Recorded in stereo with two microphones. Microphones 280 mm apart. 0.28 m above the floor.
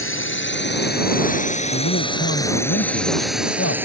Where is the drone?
50° left (ahead or behind); by 3.9 s 10° right (ahead or behind).